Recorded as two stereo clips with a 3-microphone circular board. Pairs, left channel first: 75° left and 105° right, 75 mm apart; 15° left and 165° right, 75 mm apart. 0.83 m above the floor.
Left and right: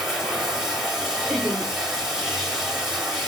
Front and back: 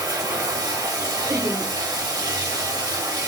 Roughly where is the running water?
Behind.